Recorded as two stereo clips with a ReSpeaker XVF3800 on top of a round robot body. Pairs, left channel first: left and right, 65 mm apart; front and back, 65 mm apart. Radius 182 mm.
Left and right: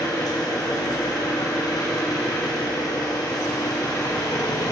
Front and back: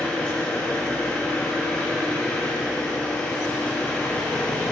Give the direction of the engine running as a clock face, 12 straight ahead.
10 o'clock.